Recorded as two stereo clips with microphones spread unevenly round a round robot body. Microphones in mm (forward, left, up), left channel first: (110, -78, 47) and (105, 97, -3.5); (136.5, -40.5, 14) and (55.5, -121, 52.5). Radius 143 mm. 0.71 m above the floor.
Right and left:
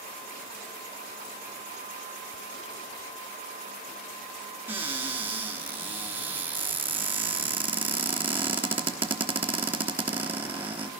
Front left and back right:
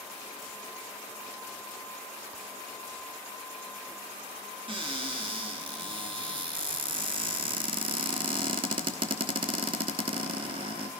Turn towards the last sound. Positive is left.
turn(degrees=160)